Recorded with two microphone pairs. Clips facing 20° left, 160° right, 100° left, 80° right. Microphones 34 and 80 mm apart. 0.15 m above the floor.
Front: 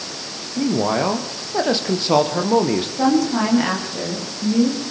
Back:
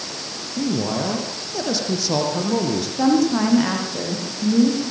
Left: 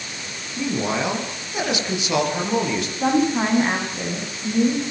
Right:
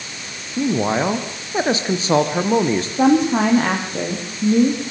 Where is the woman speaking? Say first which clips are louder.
Back 1 dB, right 5 dB; 70° right, 9.5 m.